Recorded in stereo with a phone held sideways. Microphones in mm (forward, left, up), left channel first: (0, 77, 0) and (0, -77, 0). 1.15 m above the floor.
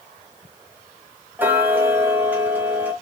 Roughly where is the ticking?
Centre.